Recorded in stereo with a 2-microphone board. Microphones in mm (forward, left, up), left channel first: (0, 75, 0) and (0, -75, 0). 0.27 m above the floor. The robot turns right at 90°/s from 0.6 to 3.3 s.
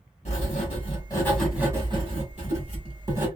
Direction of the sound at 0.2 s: 105° left.